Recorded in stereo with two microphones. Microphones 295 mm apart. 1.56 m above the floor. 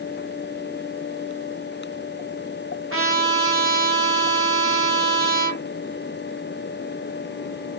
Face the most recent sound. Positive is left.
turn(degrees=-50)  # may be behind; listen again after turning